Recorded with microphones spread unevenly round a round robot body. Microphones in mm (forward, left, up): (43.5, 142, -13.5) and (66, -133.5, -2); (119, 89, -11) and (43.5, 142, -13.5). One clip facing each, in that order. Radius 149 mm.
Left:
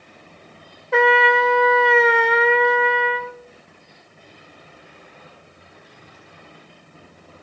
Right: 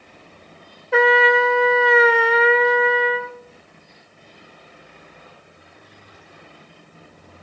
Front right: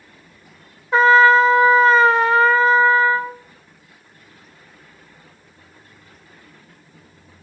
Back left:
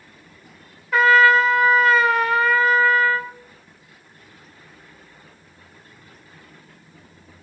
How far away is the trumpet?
About 0.5 m.